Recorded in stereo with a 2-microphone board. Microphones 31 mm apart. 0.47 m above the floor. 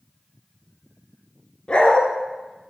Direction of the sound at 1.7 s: 35° left (ahead or behind).